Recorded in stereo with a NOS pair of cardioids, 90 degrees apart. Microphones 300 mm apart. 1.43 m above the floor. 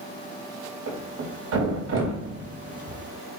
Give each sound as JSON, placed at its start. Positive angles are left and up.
{"t": 0.9, "sound": "a thud", "azimuth_deg": -55, "distance_m": 3.0}